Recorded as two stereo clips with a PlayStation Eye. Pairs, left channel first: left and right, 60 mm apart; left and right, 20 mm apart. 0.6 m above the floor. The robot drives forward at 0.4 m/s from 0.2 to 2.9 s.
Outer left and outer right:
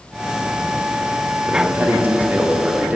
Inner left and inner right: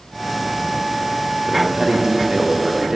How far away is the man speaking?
About 0.8 m.